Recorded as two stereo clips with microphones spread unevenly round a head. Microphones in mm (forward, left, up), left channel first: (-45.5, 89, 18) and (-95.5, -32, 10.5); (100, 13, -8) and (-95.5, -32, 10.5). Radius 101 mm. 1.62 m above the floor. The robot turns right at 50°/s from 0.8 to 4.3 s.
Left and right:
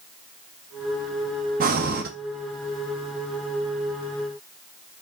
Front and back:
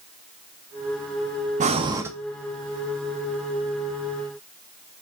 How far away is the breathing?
About 0.6 m.